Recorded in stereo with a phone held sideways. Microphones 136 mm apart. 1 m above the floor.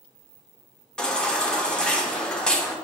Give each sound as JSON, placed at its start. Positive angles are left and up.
{"t": 1.0, "sound": "a baby crying", "side_deg": 5, "distance_m": 1.0}